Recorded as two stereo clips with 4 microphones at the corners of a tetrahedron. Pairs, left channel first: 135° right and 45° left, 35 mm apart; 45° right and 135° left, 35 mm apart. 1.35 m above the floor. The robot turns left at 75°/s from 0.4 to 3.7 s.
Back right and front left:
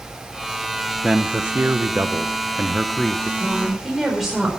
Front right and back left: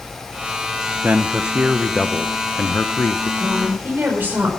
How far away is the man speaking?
About 0.7 m.